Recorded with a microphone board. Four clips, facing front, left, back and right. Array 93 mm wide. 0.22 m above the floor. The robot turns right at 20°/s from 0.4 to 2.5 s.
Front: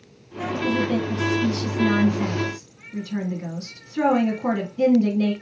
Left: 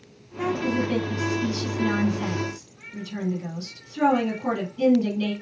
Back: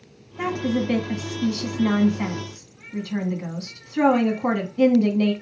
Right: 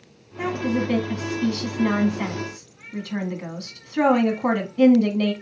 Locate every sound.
0.4 s a woman speaking: 160° right, 1.8 m; by 5.3 s 115° right, 1.8 m